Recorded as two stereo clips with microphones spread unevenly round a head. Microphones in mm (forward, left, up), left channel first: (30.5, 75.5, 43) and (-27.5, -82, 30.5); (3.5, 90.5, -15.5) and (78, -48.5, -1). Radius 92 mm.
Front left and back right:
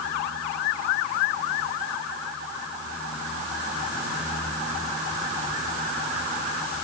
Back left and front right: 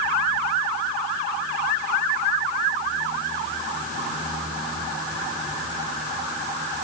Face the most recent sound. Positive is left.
No sound to turn to.